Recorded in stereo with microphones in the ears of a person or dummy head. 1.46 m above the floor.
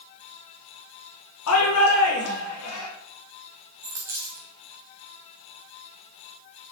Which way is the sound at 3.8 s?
20° right (ahead or behind).